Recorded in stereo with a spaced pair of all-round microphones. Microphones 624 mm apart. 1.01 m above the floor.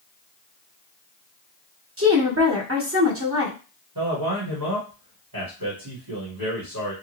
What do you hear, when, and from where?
2.0 s a woman speaking: 20° right (ahead or behind), 0.8 m
4.0 s a man speaking: 35° right (ahead or behind), 1.4 m